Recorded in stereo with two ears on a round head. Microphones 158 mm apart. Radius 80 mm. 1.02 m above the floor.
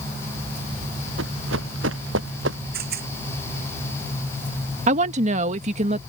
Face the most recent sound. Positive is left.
turn(degrees=-40)  # may be behind; listen again after turning